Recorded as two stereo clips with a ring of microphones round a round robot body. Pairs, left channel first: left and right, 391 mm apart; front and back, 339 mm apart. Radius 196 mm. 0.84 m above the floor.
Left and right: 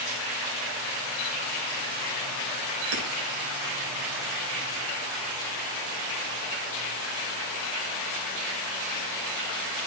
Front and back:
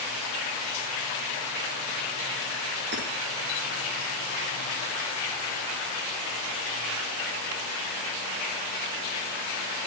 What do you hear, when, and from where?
2.9 s hammering: 115° right, 5.5 m